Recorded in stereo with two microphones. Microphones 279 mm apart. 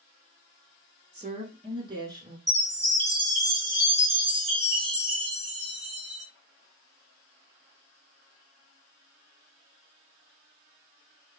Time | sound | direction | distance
1.1 | a woman speaking | 25° right (ahead or behind) | 1.3 m
2.5 | a chime | 20° right (ahead or behind) | 1.7 m